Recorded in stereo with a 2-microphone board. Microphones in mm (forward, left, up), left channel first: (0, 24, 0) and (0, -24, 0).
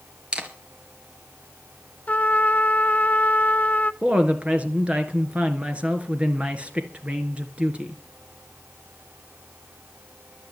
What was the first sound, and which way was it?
A camera shutter, 20° right (ahead or behind).